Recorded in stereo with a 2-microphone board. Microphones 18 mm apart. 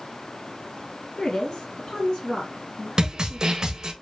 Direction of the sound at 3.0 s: 40° right (ahead or behind).